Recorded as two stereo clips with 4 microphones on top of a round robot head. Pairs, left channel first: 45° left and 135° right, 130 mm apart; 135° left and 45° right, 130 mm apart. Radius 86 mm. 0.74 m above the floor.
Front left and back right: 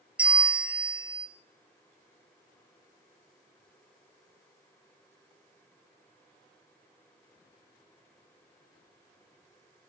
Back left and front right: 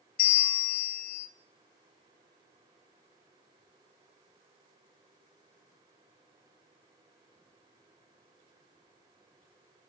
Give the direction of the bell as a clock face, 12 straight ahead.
7 o'clock.